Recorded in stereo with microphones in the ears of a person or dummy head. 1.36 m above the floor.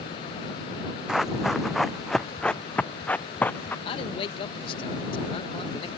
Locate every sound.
1.1 s running footsteps: 5° right (ahead or behind); by 3.8 s 5° left (ahead or behind)
3.9 s a man speaking: 25° left (ahead or behind)